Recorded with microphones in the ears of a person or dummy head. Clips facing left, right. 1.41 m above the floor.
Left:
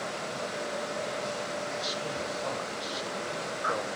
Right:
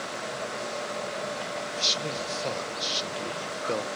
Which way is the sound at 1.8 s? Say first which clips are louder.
Right 1 dB; 35° right (ahead or behind).